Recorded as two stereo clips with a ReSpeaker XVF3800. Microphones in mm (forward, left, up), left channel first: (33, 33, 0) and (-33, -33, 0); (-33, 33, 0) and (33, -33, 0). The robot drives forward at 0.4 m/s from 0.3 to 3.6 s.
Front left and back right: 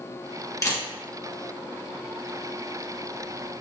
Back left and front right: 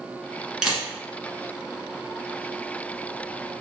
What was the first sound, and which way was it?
A camera shutter, 35° left.